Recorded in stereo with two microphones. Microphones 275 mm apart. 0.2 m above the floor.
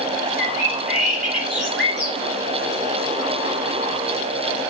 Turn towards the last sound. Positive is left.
turn(degrees=-5)  # may be behind; listen again after turning